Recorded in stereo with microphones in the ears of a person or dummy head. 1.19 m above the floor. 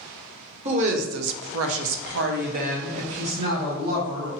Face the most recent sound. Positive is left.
turn(degrees=-30)  # may be behind; listen again after turning